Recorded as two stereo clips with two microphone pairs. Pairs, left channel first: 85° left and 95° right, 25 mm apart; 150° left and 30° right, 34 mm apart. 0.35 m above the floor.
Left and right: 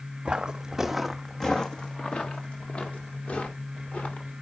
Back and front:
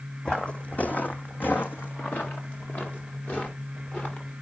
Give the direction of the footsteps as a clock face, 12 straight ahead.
5 o'clock.